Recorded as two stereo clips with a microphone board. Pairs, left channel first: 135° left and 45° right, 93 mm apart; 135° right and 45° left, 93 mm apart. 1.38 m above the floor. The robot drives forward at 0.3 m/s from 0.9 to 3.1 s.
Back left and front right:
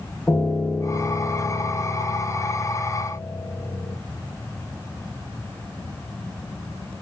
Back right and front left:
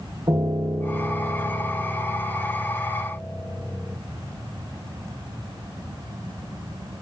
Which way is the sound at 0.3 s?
65° left.